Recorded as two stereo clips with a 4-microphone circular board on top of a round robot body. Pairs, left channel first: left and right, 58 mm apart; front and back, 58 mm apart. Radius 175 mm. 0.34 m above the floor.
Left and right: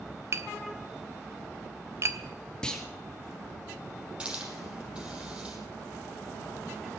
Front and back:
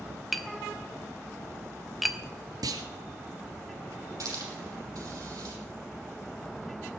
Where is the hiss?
165° right, 6.5 m.